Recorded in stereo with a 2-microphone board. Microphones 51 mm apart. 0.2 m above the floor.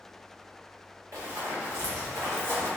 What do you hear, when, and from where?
1.1 s running footsteps: 70° right (ahead or behind), 1.3 m; by 2.7 s 35° right (ahead or behind), 0.6 m